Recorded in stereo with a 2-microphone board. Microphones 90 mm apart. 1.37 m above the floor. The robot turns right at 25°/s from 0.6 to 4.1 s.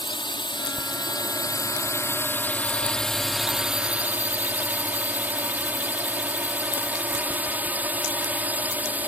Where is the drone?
110° left; by 9.1 s 160° right.